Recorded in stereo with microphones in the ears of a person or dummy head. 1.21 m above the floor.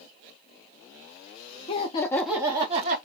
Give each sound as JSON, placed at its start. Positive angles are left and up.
{"t": 1.7, "sound": "laughter", "side_deg": 35, "distance_m": 0.7}